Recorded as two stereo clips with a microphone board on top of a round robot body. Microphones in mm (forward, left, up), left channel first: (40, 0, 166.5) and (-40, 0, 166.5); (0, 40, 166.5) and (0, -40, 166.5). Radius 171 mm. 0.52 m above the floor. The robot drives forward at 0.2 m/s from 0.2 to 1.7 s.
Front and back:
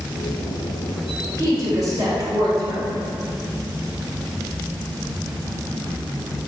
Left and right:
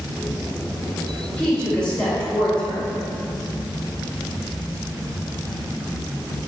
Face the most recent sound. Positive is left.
turn(degrees=165)